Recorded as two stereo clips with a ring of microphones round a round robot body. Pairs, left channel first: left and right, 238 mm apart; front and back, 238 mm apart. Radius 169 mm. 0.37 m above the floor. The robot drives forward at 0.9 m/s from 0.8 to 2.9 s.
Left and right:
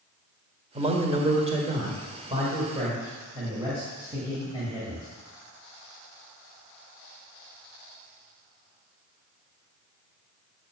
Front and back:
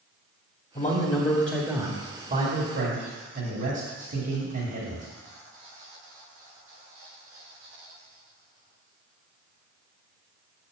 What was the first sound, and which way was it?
A man speaking, 35° right.